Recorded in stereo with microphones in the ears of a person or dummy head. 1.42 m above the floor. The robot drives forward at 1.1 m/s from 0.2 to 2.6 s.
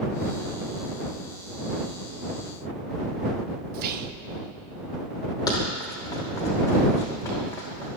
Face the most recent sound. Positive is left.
turn(degrees=15)  # may be behind; listen again after turning